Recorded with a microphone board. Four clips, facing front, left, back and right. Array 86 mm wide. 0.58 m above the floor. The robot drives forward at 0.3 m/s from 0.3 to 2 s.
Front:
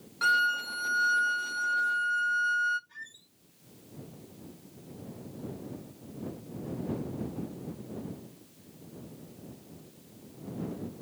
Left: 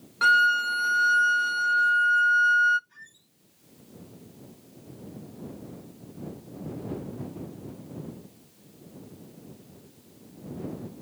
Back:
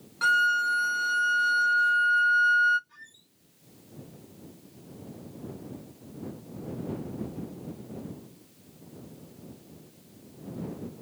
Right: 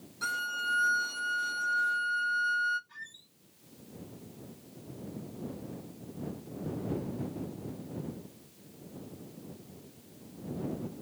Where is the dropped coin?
No dropped coin in this recording.